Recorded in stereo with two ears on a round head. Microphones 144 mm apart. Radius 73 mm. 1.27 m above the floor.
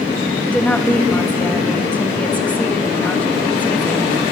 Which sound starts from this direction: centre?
A woman speaking, at 0.5 s.